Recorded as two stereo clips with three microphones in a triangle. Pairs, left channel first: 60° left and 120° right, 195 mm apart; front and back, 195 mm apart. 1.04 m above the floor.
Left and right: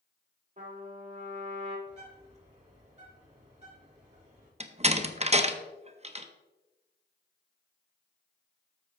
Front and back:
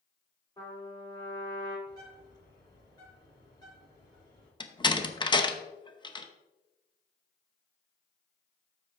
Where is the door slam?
65° right, 0.7 m.